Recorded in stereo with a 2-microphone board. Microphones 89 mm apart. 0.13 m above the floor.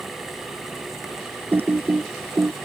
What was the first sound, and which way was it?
Typing on a keyboard, 25° right (ahead or behind).